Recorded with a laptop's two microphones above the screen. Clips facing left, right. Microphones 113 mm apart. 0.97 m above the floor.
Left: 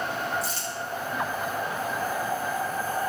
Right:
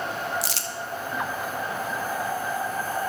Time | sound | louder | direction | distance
0.4 | crumpling | even | 85° right | 0.6 m